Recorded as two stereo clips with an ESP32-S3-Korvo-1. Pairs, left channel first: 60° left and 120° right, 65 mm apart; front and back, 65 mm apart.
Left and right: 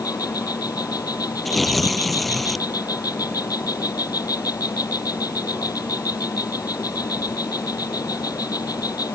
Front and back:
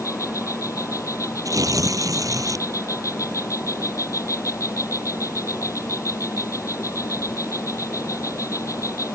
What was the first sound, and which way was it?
An insect, 40° left.